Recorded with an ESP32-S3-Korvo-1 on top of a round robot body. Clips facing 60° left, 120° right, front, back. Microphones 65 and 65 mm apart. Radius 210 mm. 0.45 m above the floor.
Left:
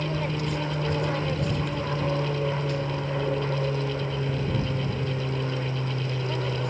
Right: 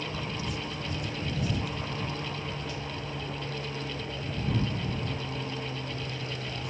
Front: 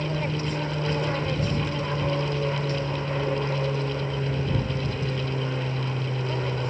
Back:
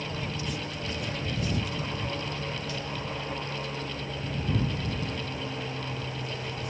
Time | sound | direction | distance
0.0 | an aircraft | 40° left | ?